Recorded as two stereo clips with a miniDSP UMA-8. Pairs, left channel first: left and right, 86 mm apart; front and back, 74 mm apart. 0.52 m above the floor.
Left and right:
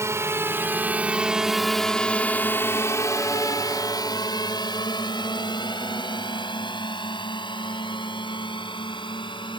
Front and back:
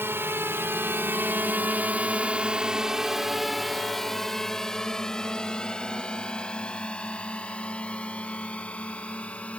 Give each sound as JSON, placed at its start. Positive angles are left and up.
{"t": 0.0, "sound": "a drone", "azimuth_deg": -135}